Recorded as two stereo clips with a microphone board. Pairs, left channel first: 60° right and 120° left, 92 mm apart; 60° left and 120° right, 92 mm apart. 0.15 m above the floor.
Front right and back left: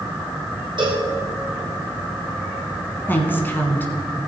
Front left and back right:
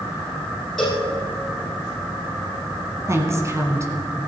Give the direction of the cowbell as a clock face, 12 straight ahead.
7 o'clock.